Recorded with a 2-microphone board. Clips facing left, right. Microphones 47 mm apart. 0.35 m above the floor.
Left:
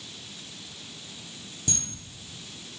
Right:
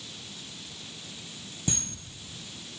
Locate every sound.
1.7 s a camera shutter: 20° right (ahead or behind), 1.6 m